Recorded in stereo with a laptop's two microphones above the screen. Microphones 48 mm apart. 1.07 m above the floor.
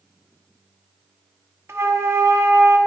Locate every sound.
1.7 s a flute: 65° right (ahead or behind), 0.8 m